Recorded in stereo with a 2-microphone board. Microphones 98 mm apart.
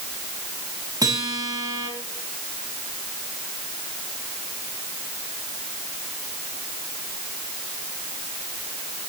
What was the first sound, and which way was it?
A guitar, 40° right (ahead or behind).